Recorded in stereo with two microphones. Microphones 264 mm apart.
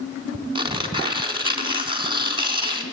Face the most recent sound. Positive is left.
turn(degrees=-20)  # may be behind; listen again after turning